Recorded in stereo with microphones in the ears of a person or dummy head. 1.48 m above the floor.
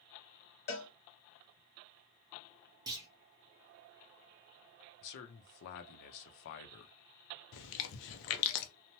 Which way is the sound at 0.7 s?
45° left (ahead or behind).